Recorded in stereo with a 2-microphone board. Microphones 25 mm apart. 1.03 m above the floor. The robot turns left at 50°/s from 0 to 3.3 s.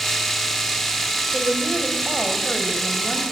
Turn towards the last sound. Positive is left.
turn(degrees=135)